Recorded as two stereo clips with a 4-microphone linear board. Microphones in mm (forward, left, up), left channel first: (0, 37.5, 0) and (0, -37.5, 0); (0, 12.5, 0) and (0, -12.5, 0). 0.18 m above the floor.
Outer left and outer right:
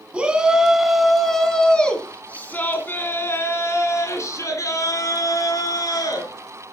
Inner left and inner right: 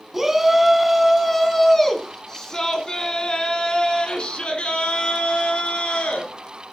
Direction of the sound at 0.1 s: 15° right (ahead or behind).